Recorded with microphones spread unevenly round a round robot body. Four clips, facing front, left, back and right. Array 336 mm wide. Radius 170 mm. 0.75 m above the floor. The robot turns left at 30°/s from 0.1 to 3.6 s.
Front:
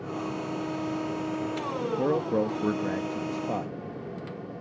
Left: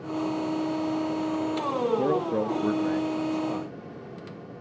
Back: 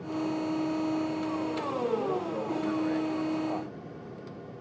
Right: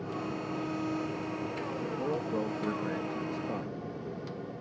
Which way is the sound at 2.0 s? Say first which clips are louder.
Left 7 dB, front 5 dB; 40° left.